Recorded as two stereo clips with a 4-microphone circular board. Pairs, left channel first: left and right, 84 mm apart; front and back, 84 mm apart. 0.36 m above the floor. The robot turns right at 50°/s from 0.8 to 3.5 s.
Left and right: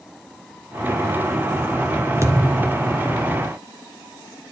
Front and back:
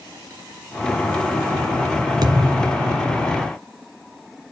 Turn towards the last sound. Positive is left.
turn(degrees=-80)